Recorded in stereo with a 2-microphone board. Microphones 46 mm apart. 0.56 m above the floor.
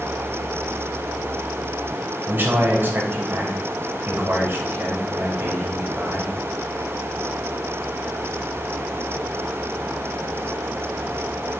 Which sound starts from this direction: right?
A man speaking, at 2.3 s.